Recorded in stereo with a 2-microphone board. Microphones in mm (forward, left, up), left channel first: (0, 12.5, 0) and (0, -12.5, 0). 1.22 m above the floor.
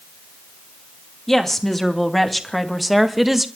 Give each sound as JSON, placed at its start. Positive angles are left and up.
{"t": 1.3, "sound": "a woman speaking", "side_deg": 10, "distance_m": 2.5}